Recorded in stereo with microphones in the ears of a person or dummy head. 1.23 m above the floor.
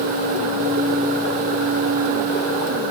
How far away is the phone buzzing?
I don't hear a phone buzzing.